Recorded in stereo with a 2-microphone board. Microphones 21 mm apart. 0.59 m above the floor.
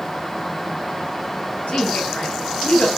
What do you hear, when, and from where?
1.7 s a woman speaking: 85° left, 6.5 m